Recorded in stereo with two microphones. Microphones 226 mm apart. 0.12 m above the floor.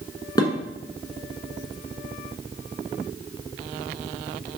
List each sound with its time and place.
0.4 s dishes clattering: 15° left (ahead or behind), 1.0 m